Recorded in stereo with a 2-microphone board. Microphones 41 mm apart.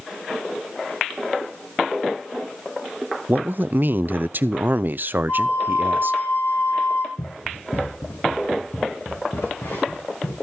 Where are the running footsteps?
45° left (ahead or behind), 2.0 m; by 10.3 s 60° left (ahead or behind), 6 m.